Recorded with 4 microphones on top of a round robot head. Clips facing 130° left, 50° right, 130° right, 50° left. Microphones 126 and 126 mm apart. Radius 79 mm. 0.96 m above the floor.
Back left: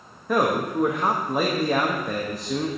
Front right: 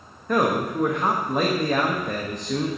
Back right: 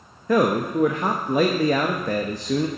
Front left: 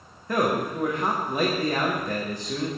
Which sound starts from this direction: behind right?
A man speaking, at 0.3 s.